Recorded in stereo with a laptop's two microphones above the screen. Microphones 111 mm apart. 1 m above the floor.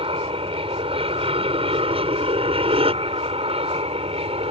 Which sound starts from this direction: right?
An aircraft, at 0.0 s.